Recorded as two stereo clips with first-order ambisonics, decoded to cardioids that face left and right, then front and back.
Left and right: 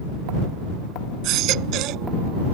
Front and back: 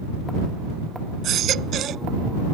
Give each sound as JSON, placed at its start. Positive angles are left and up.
{"t": 1.2, "sound": "a baby crying", "azimuth_deg": -125}